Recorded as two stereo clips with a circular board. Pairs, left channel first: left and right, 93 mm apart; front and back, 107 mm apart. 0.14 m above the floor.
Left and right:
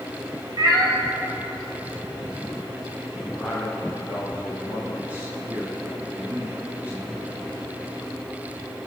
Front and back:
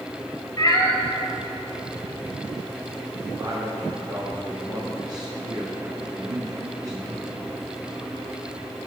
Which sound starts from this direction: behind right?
A man speaking, at 3.4 s.